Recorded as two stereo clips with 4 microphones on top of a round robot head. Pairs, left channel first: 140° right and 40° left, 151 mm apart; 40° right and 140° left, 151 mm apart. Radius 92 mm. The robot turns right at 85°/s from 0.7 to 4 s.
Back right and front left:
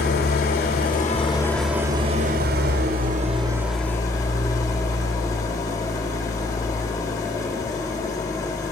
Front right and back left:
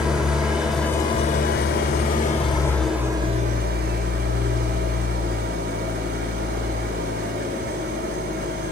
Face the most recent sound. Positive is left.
turn(degrees=150)